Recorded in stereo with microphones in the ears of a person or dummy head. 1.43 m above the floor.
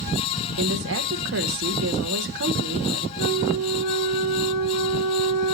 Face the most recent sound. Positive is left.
turn(degrees=50)  # may be behind; listen again after turning